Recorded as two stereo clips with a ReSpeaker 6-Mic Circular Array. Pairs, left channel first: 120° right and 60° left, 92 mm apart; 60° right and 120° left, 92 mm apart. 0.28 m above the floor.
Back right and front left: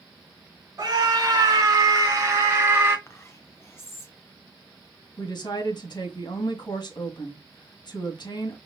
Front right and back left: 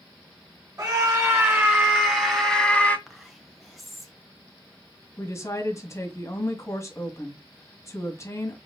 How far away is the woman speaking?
About 2.0 m.